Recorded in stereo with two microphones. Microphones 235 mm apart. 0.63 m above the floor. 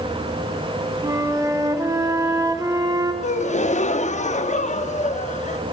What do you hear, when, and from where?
1.0 s a flute: 15° right (ahead or behind), 1.2 m
3.2 s a gasp: 30° left (ahead or behind), 0.5 m